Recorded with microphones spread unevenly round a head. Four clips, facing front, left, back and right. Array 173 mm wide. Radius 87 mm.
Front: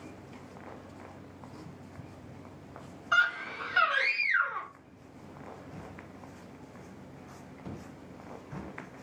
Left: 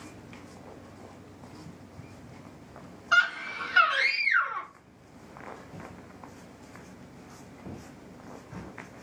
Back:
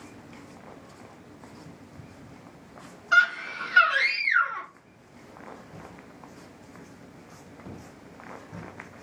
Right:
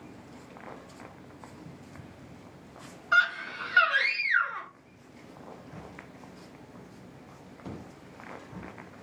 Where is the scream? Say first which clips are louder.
Even, back 5 dB; 105° left, 1.7 m.